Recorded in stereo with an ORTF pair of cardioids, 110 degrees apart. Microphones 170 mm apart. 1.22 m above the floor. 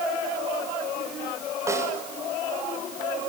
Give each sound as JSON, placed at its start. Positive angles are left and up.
{"t": 1.7, "sound": "a snare drum", "azimuth_deg": -15, "distance_m": 6.0}